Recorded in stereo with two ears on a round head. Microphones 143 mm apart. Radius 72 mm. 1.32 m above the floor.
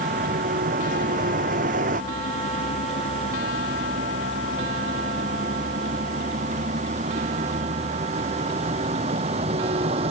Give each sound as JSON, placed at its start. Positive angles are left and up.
{"t": 0.0, "sound": "a vehicle", "side_deg": -55}